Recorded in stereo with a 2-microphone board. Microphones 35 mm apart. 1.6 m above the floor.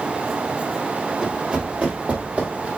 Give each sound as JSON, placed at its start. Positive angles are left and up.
{"t": 1.2, "sound": "running footsteps", "side_deg": -25, "distance_m": 1.7}